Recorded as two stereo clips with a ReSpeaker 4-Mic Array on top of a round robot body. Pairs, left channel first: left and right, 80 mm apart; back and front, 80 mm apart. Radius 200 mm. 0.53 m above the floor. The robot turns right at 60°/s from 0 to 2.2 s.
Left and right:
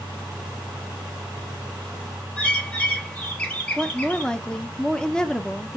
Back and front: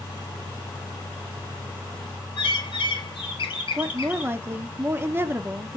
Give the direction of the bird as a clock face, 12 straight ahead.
6 o'clock.